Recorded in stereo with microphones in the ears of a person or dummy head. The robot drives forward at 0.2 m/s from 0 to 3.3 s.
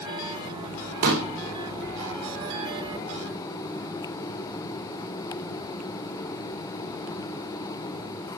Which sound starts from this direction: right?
A pop, at 1.0 s.